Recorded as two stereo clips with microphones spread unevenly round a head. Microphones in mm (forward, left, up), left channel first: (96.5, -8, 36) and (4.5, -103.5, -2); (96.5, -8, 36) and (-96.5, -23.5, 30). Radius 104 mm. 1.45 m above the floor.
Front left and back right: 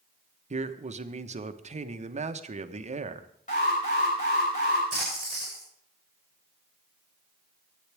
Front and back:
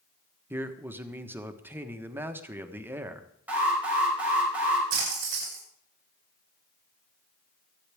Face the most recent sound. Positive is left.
turn(degrees=135)